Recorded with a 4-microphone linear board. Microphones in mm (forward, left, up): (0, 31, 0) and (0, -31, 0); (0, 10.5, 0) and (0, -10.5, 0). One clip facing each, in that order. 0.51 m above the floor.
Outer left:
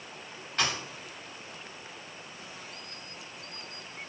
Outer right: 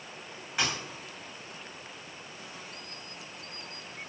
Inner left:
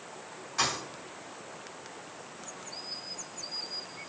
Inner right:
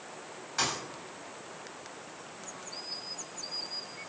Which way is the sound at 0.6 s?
10° right (ahead or behind).